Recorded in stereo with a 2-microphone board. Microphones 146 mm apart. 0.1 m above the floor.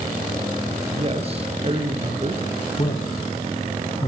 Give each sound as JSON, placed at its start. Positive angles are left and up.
{"t": 0.8, "sound": "a man speaking", "side_deg": -40, "distance_m": 2.5}
{"t": 2.8, "sound": "a man speaking", "side_deg": 35, "distance_m": 3.5}